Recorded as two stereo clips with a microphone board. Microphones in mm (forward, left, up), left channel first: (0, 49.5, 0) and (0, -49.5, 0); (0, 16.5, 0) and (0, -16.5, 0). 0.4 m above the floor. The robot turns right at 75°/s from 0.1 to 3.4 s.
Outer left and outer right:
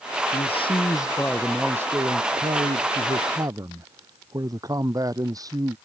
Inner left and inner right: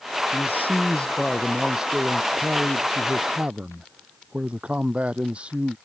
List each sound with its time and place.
0.3 s a man speaking: 90° left; by 5.8 s 40° right